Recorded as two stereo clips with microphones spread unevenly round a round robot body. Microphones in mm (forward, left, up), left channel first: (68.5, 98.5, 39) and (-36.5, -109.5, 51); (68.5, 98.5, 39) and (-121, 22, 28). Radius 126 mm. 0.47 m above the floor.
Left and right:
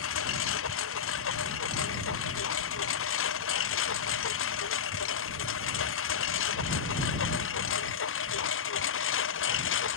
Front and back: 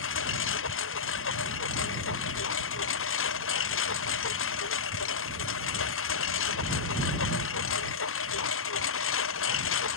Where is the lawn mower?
35° left; by 10.0 s 30° left.